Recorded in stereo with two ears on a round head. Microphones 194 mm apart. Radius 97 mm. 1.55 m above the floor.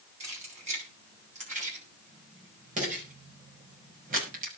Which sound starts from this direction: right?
Keys jangling, at 0.2 s.